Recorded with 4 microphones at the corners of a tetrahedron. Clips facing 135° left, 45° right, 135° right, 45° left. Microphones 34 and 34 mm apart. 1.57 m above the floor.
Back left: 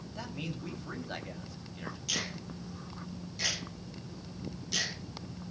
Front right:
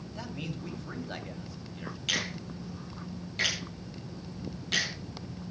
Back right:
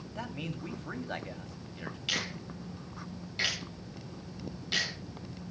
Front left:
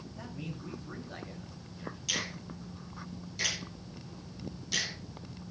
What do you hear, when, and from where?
0.1 s a man speaking: 135° right, 3 m
2.1 s a finger snap: 85° right, 9 m